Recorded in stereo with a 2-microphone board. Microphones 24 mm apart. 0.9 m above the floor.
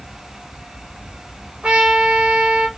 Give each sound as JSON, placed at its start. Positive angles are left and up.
{"t": 1.6, "sound": "a trumpet", "side_deg": -60, "distance_m": 0.7}